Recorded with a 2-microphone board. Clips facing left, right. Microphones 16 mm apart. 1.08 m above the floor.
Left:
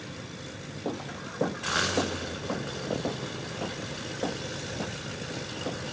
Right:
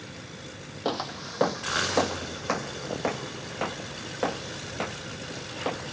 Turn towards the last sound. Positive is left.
turn(degrees=-40)  # may be behind; listen again after turning